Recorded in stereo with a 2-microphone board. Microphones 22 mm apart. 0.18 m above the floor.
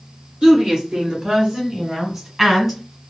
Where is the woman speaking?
45° right (ahead or behind), 2.5 m; by 2.8 s 5° right (ahead or behind), 1.8 m.